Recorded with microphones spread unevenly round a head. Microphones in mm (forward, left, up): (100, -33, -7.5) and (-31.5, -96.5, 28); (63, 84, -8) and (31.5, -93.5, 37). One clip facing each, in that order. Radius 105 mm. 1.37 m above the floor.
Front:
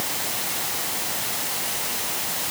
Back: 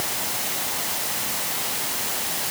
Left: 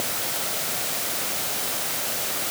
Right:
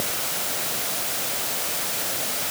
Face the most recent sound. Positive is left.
No sound to turn to.